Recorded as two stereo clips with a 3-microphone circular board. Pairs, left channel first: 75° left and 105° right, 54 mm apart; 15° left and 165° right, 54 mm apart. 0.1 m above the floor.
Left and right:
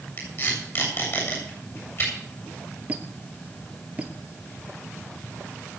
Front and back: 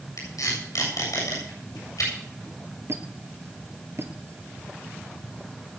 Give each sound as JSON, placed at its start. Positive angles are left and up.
{"t": 0.2, "sound": "tape being pulled", "azimuth_deg": 30, "distance_m": 7.5}
{"t": 2.9, "sound": "a squeak", "azimuth_deg": -165, "distance_m": 1.3}